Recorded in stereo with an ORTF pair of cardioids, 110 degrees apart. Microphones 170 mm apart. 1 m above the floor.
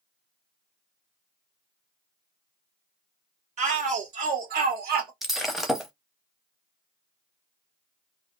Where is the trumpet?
I don't hear a trumpet.